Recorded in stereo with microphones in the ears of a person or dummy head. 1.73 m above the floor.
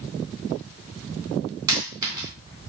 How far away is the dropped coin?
About 3 m.